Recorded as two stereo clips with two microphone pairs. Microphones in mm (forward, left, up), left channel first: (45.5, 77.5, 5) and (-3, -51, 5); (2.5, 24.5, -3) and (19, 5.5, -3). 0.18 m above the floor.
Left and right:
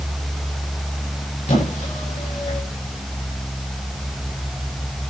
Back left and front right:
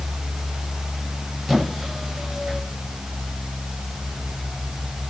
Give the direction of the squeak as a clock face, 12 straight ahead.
11 o'clock.